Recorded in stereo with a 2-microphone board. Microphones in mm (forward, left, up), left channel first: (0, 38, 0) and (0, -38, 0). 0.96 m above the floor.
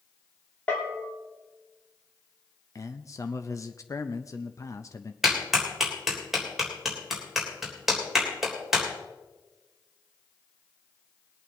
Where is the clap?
5° right (ahead or behind), 3 m.